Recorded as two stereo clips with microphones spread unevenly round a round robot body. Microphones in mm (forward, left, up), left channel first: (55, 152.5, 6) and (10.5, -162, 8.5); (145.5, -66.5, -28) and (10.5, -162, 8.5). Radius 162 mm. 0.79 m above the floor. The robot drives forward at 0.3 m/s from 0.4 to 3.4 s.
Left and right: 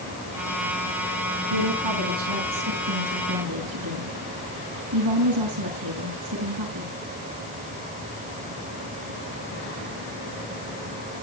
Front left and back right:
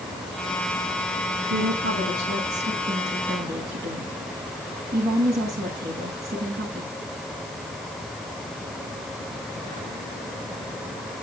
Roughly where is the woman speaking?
Behind right.